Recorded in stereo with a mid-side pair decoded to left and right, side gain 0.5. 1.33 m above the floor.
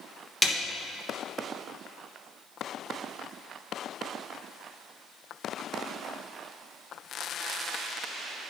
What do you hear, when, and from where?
0.4 s a snare drum: 5° left, 1.7 m